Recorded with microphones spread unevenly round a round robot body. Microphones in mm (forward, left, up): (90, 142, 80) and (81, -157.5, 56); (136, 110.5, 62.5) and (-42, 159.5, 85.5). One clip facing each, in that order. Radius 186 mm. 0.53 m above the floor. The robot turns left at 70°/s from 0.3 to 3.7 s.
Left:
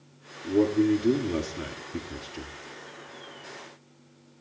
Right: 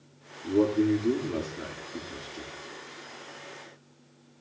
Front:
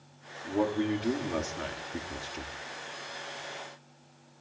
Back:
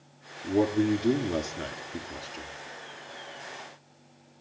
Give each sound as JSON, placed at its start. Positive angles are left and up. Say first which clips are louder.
{"t": 0.4, "sound": "a man speaking", "louder": "left 1 dB, back 4 dB", "azimuth_deg": -170, "distance_m": 1.4}